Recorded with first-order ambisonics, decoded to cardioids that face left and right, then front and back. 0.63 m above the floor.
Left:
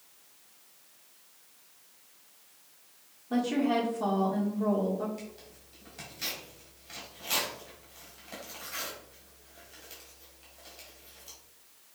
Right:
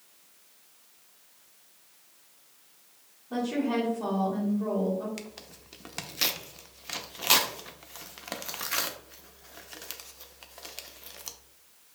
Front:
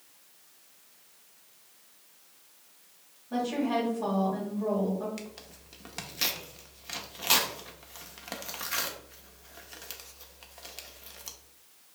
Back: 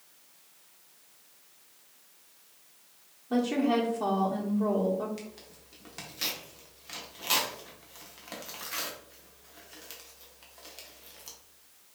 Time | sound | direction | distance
3.3 | a woman speaking | 155° left | 1.4 m
5.2 | tearing paper | 75° right | 0.5 m